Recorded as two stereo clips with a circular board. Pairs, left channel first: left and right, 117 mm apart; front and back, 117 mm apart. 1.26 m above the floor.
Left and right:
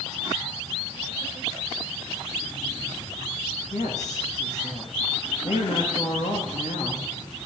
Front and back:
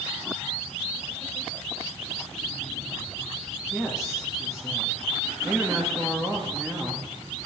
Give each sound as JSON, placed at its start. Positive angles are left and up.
{"t": 3.7, "sound": "a woman speaking", "azimuth_deg": 95, "distance_m": 2.0}